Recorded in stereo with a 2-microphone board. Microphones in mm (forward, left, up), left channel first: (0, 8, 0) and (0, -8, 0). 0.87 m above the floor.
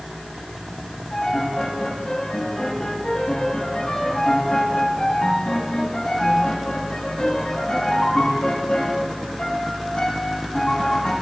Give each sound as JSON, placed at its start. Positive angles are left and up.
{"t": 1.1, "sound": "a piano", "side_deg": 60, "distance_m": 6.0}